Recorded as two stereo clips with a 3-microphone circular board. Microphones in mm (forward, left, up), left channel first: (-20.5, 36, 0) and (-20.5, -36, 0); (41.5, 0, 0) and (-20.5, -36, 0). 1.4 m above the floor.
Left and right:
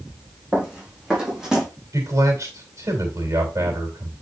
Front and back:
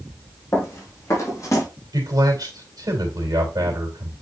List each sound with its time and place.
0.5 s running footsteps: 20° right, 4.5 m; by 1.7 s 5° right, 3.5 m
1.9 s a man speaking: 130° right, 3 m